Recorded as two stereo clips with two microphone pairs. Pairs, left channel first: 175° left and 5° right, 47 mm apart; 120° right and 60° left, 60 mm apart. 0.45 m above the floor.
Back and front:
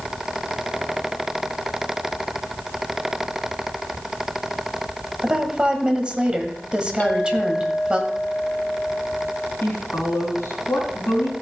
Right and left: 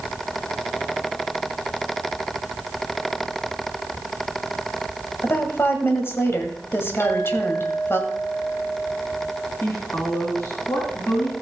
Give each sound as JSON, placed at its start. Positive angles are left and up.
{"t": 5.2, "sound": "a woman speaking", "azimuth_deg": -75, "distance_m": 1.8}
{"t": 7.0, "sound": "a clink", "azimuth_deg": -145, "distance_m": 1.1}
{"t": 9.6, "sound": "a woman speaking", "azimuth_deg": -160, "distance_m": 4.0}